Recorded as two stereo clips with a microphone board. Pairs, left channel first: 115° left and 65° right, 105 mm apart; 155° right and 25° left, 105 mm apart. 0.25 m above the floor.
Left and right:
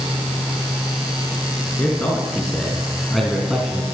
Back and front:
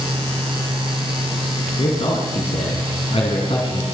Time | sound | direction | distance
1.8 | a man speaking | 175° right | 3.5 m